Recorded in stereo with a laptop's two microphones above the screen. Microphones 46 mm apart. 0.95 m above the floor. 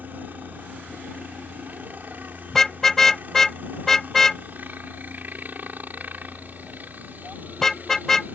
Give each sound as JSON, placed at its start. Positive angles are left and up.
{"t": 0.0, "sound": "a helicopter", "side_deg": -40}
{"t": 2.5, "sound": "a car horn", "side_deg": 10}